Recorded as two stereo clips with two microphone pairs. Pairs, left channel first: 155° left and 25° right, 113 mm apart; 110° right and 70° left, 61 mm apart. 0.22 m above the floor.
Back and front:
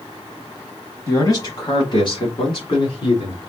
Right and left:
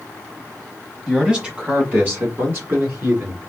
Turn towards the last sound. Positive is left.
turn(degrees=115)